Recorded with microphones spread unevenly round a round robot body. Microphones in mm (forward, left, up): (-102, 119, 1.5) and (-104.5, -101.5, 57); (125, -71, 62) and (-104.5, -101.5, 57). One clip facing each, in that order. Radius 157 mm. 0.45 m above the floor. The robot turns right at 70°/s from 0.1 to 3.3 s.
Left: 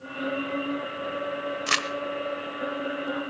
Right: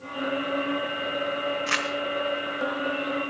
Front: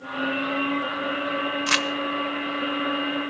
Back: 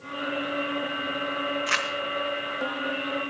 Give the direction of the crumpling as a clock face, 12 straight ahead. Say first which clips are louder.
Right 2 dB, front 6 dB; 10 o'clock.